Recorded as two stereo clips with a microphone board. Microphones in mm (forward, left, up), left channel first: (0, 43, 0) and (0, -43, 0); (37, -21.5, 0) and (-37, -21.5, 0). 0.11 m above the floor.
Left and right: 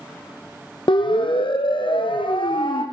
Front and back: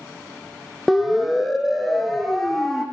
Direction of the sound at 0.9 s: 95° left.